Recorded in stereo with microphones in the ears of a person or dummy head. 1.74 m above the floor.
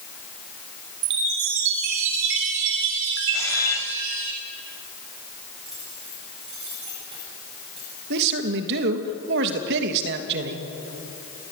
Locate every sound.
1.0 s a chime: 70° right (ahead or behind), 4 m
3.3 s a camera shutter: 15° left (ahead or behind), 1.9 m
5.7 s keys jangling: 25° right (ahead or behind), 8 m
8.1 s a man speaking: 60° right (ahead or behind), 2.5 m